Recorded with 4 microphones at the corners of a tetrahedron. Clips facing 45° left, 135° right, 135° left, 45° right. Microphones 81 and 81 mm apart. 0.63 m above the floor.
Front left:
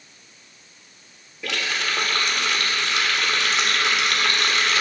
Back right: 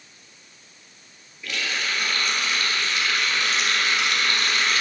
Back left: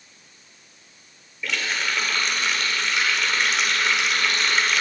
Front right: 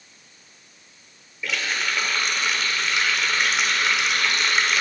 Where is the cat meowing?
No cat meowing in this recording.